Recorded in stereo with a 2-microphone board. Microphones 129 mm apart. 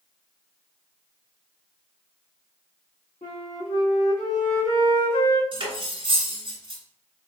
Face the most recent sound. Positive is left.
turn(degrees=-50)  # may be behind; listen again after turning